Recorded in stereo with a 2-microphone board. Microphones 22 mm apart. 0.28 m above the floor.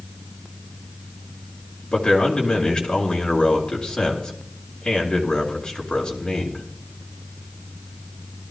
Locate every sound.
1.9 s a man speaking: 40° left (ahead or behind), 3.5 m